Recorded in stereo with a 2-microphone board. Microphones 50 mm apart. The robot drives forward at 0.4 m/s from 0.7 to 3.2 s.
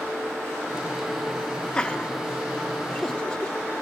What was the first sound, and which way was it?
Laughter, 15° left (ahead or behind).